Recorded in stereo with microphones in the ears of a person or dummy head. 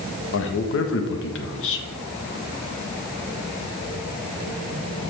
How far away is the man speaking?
About 1.3 m.